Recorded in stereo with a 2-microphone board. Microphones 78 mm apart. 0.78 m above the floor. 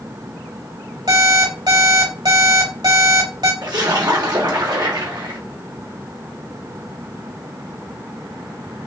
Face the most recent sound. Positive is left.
turn(degrees=-65)  # may be behind; listen again after turning